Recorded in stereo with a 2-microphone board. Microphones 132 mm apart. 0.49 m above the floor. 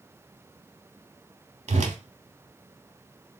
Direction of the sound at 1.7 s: 60° right (ahead or behind).